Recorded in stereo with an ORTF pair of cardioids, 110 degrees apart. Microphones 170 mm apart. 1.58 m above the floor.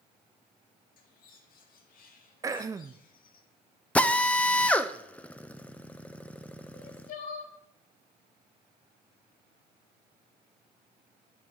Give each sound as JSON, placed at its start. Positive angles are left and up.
{"t": 1.0, "sound": "a bird", "azimuth_deg": 60, "distance_m": 2.0}
{"t": 2.4, "sound": "throat clearing", "azimuth_deg": -20, "distance_m": 0.7}
{"t": 4.0, "sound": "a drill", "azimuth_deg": 10, "distance_m": 0.9}
{"t": 6.7, "sound": "crying", "azimuth_deg": 60, "distance_m": 3.0}